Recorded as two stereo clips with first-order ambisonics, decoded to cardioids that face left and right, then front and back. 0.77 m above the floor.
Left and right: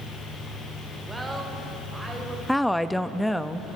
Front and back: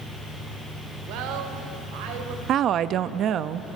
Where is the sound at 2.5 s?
175° left, 0.6 m.